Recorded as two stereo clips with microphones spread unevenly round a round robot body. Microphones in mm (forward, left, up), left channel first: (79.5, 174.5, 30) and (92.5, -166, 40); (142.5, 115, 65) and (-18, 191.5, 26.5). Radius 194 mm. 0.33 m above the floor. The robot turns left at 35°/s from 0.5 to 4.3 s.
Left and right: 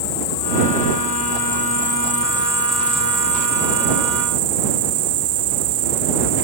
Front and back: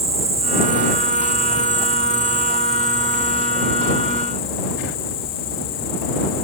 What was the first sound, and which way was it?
An insect, 80° left.